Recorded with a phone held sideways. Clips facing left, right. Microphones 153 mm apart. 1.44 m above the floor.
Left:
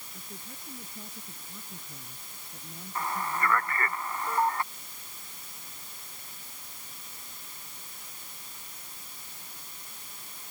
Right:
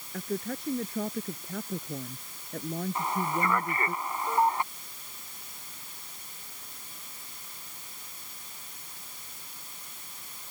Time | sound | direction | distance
0.1 | a woman speaking | 75° right (ahead or behind) | ?
3.0 | a man speaking | 20° right (ahead or behind) | ?